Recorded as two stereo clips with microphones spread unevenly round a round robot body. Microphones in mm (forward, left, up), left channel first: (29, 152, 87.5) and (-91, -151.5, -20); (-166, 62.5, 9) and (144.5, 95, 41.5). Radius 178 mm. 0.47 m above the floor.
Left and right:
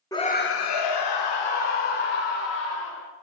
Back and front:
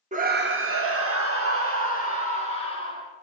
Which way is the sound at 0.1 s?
45° right.